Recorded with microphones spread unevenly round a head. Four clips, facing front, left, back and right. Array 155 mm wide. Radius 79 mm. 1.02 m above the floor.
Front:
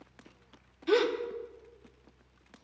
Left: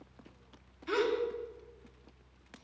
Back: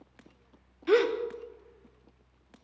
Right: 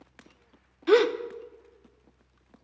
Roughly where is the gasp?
Right.